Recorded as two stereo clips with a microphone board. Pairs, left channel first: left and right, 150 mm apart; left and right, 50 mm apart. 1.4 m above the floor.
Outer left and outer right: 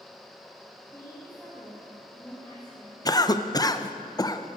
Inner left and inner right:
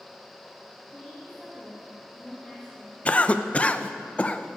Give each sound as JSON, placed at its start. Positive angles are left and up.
{"t": 0.9, "sound": "a woman speaking", "side_deg": 10, "distance_m": 2.5}
{"t": 3.0, "sound": "a cough", "side_deg": 25, "distance_m": 0.7}